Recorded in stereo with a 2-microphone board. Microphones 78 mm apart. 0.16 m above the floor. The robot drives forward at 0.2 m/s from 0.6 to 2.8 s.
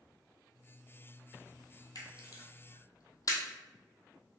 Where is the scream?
I don't hear a scream.